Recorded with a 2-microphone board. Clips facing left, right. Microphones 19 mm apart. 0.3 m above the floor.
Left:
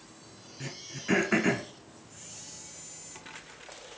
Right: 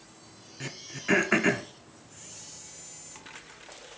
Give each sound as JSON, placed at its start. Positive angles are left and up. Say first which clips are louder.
{"t": 0.6, "sound": "throat clearing", "louder": "right 3 dB", "side_deg": -15, "distance_m": 0.5}